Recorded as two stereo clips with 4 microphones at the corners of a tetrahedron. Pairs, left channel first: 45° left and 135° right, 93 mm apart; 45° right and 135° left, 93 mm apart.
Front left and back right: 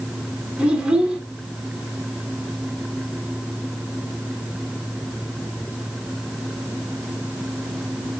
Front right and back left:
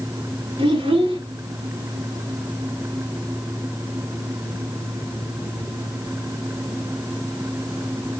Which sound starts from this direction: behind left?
A child speaking, at 0.6 s.